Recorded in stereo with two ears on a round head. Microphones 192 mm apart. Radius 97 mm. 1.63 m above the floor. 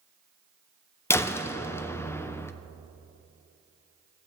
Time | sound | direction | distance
1.1 | a door slam | 10° left (ahead or behind) | 0.5 m